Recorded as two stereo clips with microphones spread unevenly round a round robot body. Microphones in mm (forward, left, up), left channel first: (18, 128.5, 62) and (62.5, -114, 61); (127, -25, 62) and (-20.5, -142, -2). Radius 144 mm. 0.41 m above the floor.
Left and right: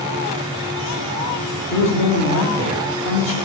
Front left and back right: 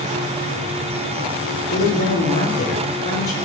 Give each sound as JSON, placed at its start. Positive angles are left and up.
{"t": 1.7, "sound": "a man speaking", "azimuth_deg": 70, "distance_m": 6.5}